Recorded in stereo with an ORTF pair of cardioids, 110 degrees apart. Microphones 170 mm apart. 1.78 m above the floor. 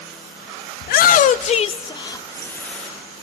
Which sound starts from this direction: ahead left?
A shout, at 0.8 s.